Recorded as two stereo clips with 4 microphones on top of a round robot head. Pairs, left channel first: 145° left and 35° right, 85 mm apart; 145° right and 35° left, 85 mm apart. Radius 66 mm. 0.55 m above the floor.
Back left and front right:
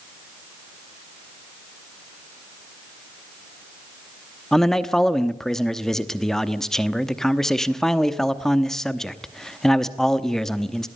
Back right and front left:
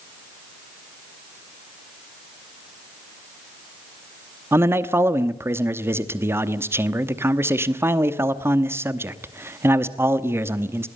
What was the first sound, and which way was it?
A man speaking, 65° left.